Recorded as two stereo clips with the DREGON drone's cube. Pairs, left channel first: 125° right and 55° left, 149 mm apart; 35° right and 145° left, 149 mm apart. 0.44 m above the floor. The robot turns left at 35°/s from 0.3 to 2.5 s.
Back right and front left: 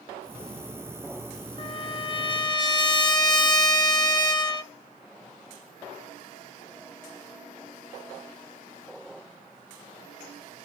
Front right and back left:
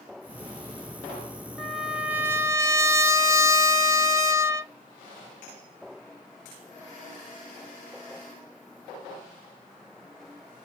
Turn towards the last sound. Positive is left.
turn(degrees=-160)